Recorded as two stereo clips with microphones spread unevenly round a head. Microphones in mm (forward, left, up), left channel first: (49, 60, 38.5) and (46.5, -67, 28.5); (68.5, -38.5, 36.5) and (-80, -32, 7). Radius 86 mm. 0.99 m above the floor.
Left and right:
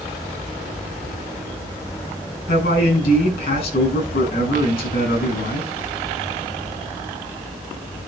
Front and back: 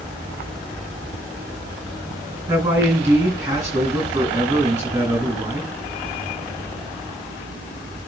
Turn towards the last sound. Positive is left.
turn(degrees=100)